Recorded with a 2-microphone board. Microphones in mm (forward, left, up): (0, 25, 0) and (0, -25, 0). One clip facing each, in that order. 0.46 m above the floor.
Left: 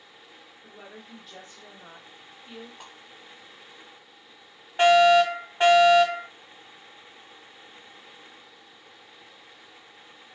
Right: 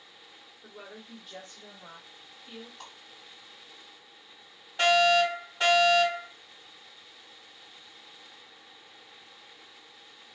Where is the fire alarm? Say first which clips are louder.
Left 6 dB; 30° left (ahead or behind), 2 m.